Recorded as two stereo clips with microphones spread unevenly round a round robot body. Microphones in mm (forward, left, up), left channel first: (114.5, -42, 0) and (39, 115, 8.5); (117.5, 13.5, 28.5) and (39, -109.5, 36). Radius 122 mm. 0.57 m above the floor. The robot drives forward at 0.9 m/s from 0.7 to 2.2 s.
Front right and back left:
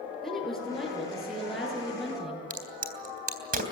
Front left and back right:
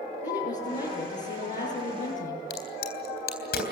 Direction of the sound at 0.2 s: 25° left.